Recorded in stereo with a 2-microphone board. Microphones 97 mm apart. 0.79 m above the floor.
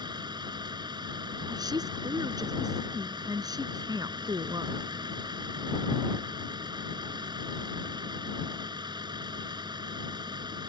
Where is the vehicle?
50° right (ahead or behind).